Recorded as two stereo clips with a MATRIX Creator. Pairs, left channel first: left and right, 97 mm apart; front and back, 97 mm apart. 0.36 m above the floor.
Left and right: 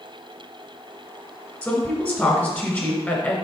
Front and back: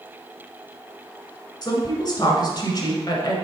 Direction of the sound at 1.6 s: 25° left.